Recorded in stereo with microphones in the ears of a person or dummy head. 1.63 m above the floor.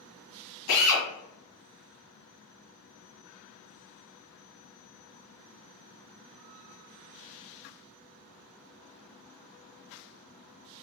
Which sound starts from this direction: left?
A drill, at 0.7 s.